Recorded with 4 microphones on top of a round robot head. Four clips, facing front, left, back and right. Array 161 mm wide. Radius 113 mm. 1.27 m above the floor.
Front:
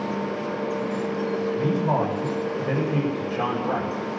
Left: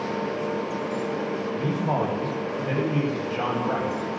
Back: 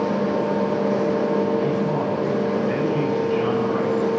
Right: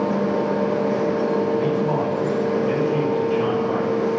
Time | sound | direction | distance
1.6 | a man speaking | 35° left | 7 m